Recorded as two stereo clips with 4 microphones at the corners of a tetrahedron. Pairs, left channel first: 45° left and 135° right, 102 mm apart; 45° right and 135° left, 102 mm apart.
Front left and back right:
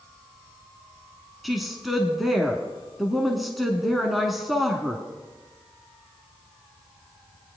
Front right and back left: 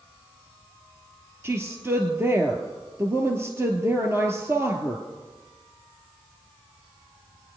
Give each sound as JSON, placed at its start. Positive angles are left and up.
{"t": 1.4, "sound": "a woman speaking", "azimuth_deg": 135, "distance_m": 1.1}